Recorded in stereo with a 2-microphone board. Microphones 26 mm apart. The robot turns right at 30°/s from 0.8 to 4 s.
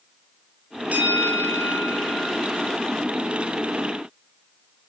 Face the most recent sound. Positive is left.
turn(degrees=-5)